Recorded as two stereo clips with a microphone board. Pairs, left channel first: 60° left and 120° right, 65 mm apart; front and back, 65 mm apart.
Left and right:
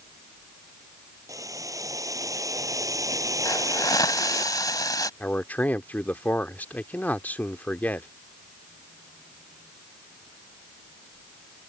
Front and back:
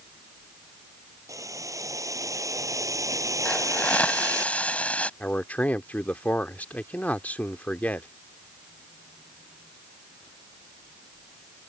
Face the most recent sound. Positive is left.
turn(degrees=35)